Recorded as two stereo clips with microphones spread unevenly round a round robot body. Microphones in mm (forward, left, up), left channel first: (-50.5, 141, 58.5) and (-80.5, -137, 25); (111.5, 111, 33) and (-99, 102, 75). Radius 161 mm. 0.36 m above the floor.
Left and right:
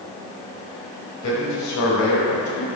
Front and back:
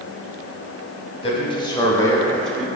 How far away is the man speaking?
About 1.9 m.